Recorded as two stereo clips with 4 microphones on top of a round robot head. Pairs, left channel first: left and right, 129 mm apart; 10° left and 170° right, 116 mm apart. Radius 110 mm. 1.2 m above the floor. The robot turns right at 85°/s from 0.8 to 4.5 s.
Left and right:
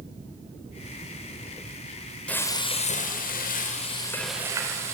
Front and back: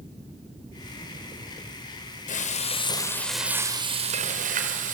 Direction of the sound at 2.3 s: 10° left.